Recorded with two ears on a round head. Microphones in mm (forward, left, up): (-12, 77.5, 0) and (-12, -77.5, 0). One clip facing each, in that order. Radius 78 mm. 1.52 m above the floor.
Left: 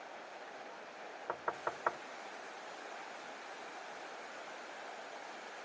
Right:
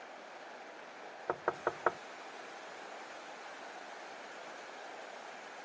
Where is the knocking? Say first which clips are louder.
Right 5 dB; 45° right (ahead or behind), 0.6 m.